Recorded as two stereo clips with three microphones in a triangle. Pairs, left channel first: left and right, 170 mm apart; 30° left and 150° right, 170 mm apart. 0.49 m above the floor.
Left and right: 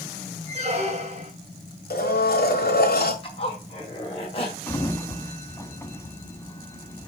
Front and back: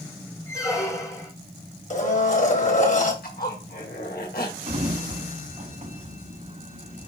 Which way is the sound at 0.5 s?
40° right.